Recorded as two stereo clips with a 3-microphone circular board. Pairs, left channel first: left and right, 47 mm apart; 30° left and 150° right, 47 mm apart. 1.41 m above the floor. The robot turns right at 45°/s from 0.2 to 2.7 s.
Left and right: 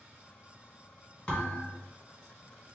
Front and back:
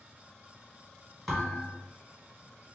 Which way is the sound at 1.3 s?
120° left.